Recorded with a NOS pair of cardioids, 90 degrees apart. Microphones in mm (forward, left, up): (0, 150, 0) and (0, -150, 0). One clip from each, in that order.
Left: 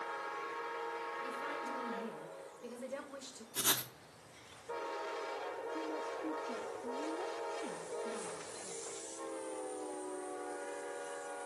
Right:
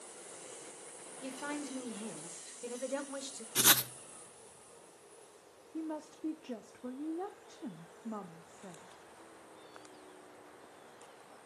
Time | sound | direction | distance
1.2 | a woman speaking | 35° right | 1.5 m
3.5 | writing | 35° right | 0.5 m
5.7 | a woman speaking | 25° right | 0.5 m